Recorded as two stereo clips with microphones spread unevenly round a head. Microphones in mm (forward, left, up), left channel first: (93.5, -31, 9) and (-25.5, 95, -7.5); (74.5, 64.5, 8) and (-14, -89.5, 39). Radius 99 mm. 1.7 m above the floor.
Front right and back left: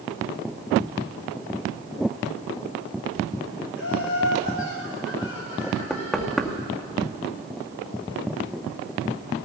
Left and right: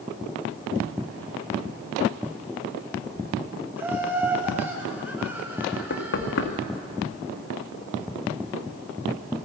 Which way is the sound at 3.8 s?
40° right.